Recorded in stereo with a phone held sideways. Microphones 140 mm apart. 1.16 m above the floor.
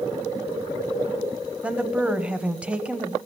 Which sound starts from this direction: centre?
A woman speaking, at 1.6 s.